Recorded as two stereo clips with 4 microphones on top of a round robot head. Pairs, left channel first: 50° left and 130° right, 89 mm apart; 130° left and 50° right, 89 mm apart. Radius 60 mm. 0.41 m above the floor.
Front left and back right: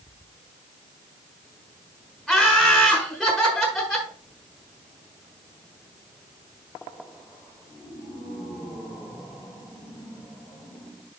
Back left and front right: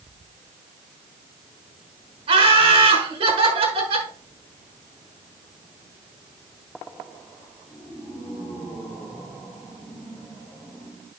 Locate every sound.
2.3 s laughter: 45° right, 5.5 m